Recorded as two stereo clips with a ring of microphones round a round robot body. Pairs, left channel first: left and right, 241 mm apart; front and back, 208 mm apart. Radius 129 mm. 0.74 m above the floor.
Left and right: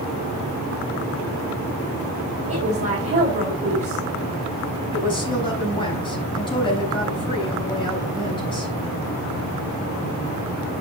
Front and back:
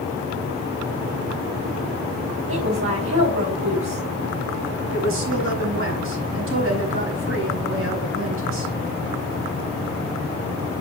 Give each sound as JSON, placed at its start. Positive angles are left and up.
{"t": 2.5, "sound": "a woman speaking", "azimuth_deg": -150, "distance_m": 3.5}
{"t": 4.9, "sound": "a woman speaking", "azimuth_deg": 160, "distance_m": 5.0}